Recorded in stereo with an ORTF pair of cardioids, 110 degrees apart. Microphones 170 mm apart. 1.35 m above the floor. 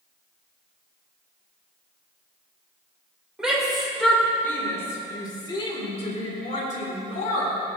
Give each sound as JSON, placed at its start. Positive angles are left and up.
{"t": 3.4, "sound": "a shout", "azimuth_deg": -5, "distance_m": 4.0}